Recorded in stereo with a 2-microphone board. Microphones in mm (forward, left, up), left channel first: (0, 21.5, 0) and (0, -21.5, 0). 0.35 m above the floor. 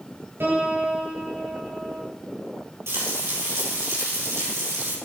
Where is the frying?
80° right, 5.5 m.